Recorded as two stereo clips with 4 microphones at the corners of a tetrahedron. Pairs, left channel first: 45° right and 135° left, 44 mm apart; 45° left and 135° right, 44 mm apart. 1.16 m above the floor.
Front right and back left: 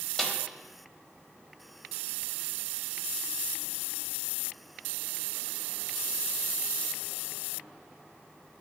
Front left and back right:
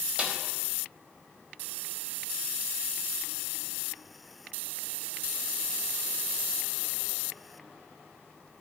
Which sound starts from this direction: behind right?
A snare drum, at 0.2 s.